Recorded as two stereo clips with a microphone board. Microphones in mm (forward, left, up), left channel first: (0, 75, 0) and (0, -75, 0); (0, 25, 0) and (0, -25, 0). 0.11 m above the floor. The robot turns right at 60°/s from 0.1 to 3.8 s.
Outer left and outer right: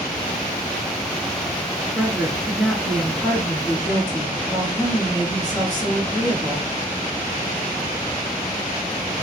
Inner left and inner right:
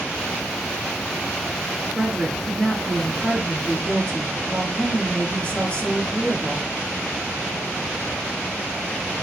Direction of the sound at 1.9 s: 15° right (ahead or behind).